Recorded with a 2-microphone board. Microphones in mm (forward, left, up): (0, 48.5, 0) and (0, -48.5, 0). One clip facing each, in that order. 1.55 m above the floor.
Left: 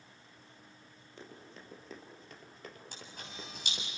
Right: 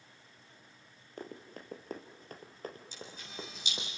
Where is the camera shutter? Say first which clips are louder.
Right 2 dB; 60° left (ahead or behind), 8 m.